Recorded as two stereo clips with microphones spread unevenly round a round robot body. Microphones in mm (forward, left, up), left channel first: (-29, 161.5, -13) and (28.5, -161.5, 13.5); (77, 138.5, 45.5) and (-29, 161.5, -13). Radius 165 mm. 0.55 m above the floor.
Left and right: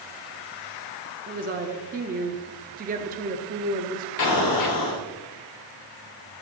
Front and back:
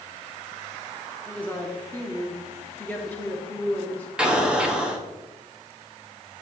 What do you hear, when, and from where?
1.3 s a woman speaking: 130° right, 0.7 m
4.2 s an explosion: 105° left, 1.6 m